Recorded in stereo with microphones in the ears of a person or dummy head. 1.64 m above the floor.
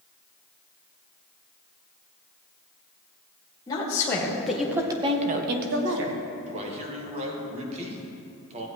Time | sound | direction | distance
3.7 | a woman speaking | 20° left (ahead or behind) | 1.9 m
6.5 | a man speaking | 35° right (ahead or behind) | 1.6 m